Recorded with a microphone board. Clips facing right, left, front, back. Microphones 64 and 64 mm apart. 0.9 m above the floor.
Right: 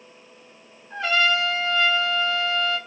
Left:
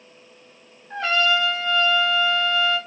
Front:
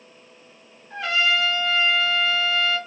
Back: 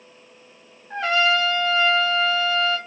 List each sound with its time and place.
0.9 s a trumpet: 130° left, 1.5 m